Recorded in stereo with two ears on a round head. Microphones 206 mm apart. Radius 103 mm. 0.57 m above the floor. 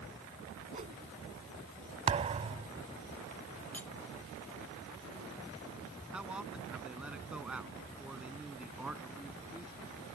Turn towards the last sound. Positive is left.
turn(degrees=-5)  # may be behind; listen again after turning